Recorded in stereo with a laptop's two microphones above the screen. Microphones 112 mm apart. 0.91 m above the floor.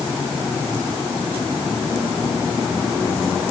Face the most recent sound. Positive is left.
No sound to turn to.